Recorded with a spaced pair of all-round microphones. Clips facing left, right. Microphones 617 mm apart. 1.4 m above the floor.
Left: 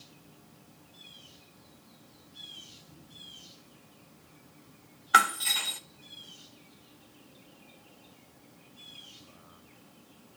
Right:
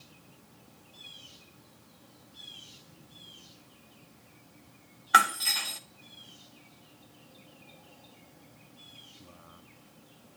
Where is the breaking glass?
Centre (ahead or behind), 0.6 m.